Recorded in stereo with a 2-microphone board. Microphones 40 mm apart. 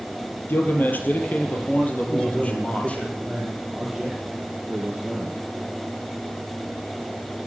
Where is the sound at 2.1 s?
25° left (ahead or behind), 8 m.